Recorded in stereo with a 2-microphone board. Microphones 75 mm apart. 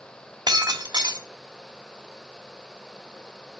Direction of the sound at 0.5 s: 60° right (ahead or behind).